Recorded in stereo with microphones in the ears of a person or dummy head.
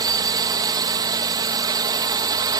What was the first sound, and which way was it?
A drone, 20° right (ahead or behind).